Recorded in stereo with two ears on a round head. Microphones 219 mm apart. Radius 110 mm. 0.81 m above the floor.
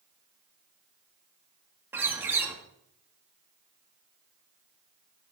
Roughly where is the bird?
Centre.